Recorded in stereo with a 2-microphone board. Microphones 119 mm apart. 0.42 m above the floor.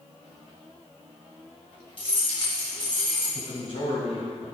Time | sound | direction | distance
2.0 | keys jangling | 45° left (ahead or behind) | 2.5 m
3.4 | a man speaking | 55° left (ahead or behind) | 2 m